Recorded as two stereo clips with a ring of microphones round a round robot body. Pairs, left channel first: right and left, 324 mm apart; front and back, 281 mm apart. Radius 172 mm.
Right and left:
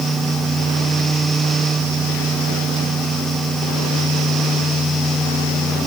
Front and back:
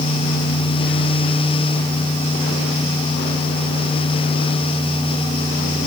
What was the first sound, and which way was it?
Only background noise.